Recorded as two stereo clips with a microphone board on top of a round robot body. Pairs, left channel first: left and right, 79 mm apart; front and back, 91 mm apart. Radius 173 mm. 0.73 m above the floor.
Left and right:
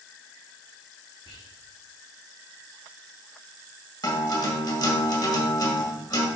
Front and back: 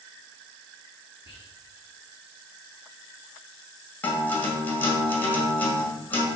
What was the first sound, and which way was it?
Whispering, 115° left.